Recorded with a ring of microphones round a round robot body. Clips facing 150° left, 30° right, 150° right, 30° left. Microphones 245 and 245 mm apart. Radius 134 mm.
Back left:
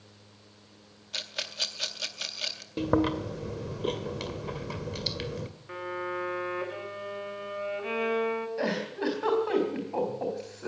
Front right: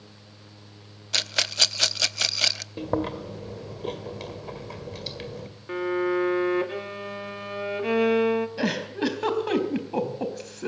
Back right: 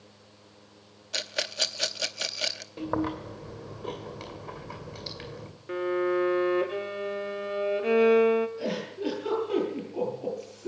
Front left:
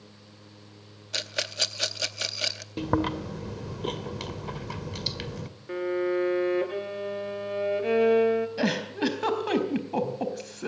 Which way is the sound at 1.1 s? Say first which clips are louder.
Front right 7 dB, even; 55° right.